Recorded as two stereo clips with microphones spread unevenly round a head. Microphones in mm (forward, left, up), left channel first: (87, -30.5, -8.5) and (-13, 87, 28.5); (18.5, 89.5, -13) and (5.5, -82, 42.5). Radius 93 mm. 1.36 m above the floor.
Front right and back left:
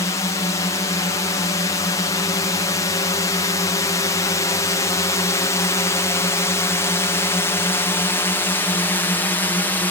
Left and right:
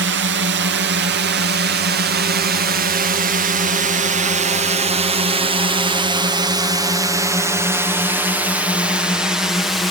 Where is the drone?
100° right; by 9.9 s 10° left.